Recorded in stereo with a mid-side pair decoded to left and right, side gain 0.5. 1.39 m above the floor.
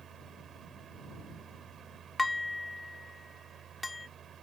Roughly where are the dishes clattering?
Ahead.